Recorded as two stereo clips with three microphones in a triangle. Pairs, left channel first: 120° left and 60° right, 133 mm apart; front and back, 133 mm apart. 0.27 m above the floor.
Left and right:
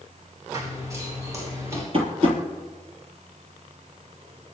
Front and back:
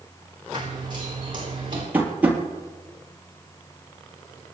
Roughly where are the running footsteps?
Behind right.